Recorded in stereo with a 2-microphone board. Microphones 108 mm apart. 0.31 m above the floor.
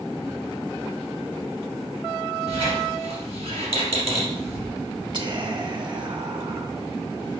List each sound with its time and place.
2.5 s a squeak: 70° right (ahead or behind), 2.5 m
5.1 s whispering: 50° right (ahead or behind), 1.2 m